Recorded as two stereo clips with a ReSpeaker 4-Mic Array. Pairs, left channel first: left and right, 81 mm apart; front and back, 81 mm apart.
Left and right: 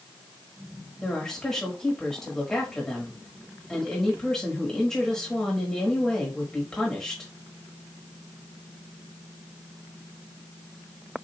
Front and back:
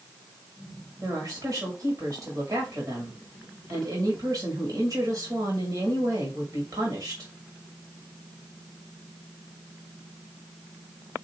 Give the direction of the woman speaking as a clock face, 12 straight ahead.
6 o'clock.